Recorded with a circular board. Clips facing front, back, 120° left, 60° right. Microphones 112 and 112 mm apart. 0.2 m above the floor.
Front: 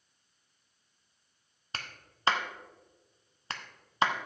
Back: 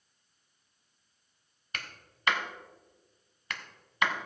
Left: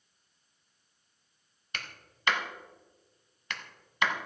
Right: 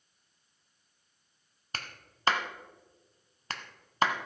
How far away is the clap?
About 1.0 m.